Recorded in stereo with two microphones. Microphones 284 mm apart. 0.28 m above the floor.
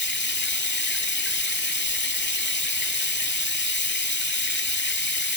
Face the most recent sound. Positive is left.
turn(degrees=40)  # may be behind; listen again after turning